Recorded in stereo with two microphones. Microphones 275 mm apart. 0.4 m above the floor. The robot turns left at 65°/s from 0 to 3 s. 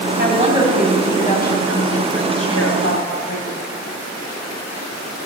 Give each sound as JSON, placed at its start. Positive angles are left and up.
{"t": 0.2, "sound": "a woman speaking", "azimuth_deg": -140, "distance_m": 3.0}